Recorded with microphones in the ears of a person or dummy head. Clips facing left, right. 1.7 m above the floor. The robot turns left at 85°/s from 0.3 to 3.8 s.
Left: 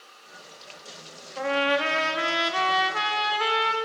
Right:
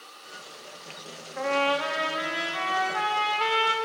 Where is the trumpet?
170° right, 1.8 m; by 3.7 s 15° right, 1.8 m.